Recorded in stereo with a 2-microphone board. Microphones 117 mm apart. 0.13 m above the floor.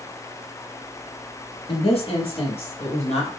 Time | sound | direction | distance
1.7 | a woman speaking | 50° left (ahead or behind) | 2.5 m